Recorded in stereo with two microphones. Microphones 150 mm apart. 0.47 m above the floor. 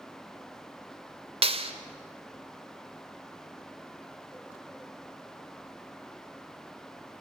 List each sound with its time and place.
1.4 s a clap: 45° right (ahead or behind), 1.2 m